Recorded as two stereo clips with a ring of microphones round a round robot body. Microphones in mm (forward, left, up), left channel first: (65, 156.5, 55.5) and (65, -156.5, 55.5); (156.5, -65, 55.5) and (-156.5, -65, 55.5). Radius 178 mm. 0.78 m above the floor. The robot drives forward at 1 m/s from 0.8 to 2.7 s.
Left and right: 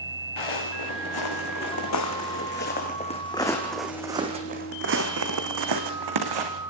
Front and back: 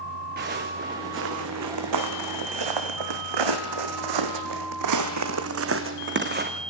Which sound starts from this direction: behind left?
Footsteps, at 0.4 s.